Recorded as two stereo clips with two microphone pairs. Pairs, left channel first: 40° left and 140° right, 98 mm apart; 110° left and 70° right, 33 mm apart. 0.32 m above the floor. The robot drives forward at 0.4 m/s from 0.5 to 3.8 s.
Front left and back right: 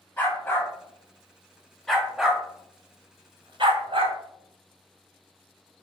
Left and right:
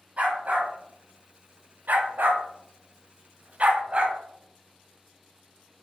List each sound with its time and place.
0.2 s a dog barking: 25° right, 1.1 m; by 4.2 s 125° right, 0.6 m